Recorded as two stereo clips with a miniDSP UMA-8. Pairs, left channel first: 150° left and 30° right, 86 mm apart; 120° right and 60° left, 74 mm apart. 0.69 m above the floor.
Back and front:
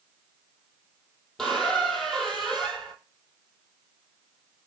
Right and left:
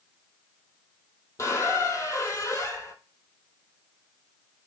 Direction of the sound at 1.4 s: 125° right.